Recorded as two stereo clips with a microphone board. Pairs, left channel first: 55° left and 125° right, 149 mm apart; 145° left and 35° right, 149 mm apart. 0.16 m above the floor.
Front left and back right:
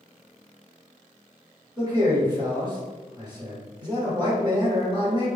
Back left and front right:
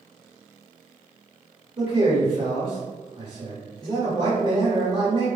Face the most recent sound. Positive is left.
turn(degrees=-75)